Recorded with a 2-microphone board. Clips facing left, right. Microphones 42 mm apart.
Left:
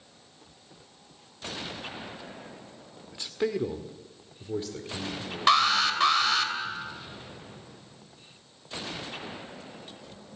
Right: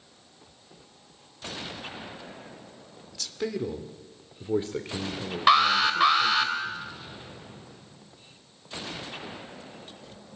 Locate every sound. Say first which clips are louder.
3.1 s a man speaking: left 3 dB; 25° left (ahead or behind), 1.6 m; by 6.5 s 65° right (ahead or behind), 3 m
5.5 s an alarm: right 2 dB; 10° right (ahead or behind), 2 m